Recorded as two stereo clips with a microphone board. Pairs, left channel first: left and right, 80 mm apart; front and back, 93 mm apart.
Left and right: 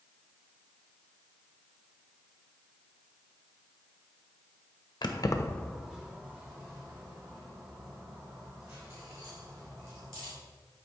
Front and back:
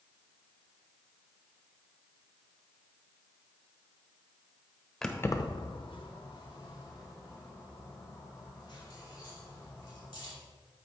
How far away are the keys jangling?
About 0.8 m.